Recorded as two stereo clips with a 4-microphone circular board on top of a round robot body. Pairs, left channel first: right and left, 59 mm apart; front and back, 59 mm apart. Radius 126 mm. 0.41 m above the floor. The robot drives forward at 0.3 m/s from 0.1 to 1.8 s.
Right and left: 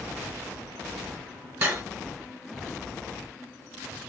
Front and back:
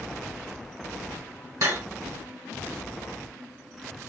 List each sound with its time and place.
1.6 s cutlery clinking: 150° left, 1.7 m